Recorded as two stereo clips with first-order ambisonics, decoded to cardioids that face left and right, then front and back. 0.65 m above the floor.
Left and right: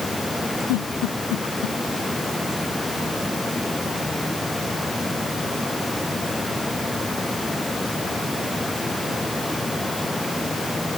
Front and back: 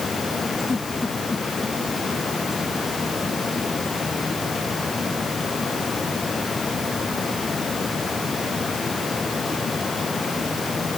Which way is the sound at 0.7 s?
80° left.